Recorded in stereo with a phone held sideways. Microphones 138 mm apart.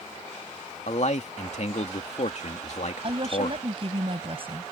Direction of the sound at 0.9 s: 55° left (ahead or behind).